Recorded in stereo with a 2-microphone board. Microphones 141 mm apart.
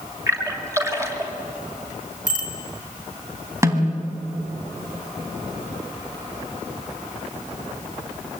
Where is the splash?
20° right (ahead or behind), 3 m.